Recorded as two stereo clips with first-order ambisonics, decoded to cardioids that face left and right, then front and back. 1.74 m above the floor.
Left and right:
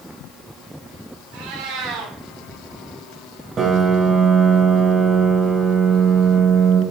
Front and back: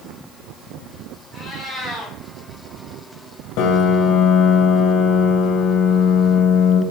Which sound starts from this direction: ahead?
A piano, at 3.6 s.